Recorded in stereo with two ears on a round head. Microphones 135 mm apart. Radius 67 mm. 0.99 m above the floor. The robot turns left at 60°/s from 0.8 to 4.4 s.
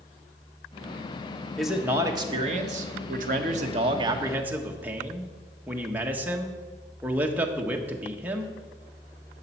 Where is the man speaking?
5° left, 1.3 m; by 8.5 s 165° right, 1.3 m.